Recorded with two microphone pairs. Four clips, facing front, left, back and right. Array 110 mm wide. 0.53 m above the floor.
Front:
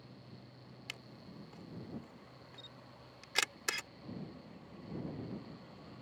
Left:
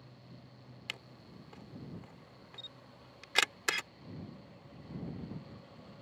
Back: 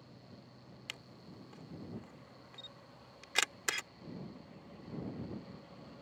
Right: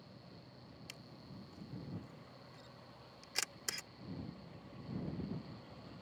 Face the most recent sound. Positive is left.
turn(degrees=100)